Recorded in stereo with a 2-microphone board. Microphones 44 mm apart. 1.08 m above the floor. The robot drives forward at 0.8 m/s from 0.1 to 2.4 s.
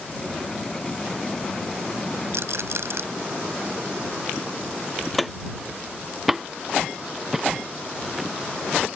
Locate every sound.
2.3 s a rattle: 75° right (ahead or behind)
5.1 s footsteps: 5° left (ahead or behind); by 8.3 s 10° right (ahead or behind)